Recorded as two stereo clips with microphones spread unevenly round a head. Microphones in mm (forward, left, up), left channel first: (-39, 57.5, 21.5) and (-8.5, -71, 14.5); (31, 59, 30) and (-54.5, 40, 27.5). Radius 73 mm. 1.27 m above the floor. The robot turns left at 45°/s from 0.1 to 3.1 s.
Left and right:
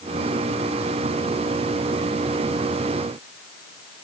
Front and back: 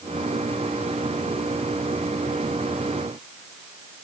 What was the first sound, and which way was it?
Only background noise.